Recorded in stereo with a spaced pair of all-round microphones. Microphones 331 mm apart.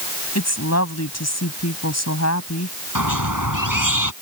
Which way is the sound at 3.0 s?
70° right (ahead or behind).